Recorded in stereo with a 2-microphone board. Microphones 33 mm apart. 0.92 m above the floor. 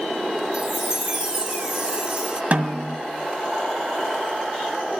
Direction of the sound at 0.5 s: 30° right (ahead or behind).